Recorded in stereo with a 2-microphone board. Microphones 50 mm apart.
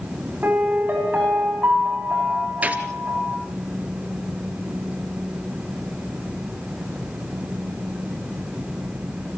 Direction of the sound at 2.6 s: 30° right (ahead or behind).